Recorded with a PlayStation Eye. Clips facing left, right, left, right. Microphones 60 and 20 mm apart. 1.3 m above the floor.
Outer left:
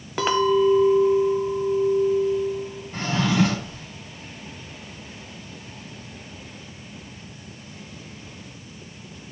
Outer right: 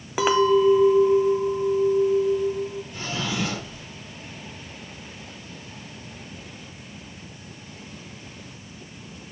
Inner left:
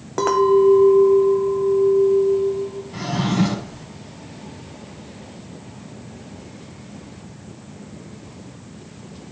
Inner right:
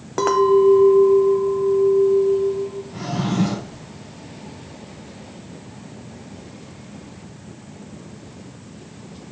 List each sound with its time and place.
0.2 s a clink: 5° right (ahead or behind), 0.8 m
2.9 s a drawer: 55° left (ahead or behind), 2.5 m